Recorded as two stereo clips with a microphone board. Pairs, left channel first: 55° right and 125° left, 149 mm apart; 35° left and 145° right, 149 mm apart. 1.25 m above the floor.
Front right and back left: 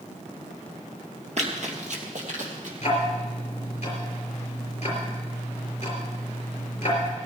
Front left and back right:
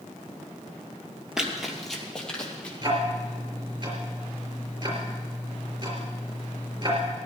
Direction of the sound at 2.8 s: 95° right.